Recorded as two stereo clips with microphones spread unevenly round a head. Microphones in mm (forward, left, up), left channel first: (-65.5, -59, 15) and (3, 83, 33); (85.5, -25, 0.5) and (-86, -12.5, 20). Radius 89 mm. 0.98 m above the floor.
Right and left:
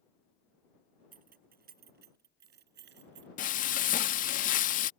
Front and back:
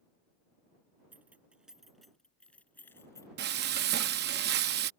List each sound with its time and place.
1.1 s keys jangling: 95° left; by 3.3 s 70° left
3.4 s frying: 155° right